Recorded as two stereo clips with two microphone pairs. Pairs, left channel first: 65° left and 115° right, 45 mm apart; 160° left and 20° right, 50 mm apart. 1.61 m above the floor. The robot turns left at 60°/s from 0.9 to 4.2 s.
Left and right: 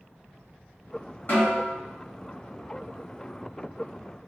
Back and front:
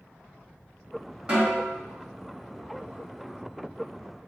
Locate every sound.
1.3 s a snare drum: 45° left, 1.4 m; by 1.7 s 15° left, 1.4 m